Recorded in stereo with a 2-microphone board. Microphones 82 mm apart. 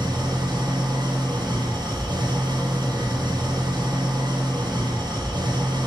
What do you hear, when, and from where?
0.0 s an engine running: 60° right (ahead or behind), 3.5 m